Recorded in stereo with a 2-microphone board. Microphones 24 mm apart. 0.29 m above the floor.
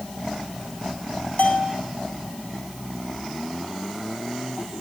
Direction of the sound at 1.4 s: 60° left (ahead or behind).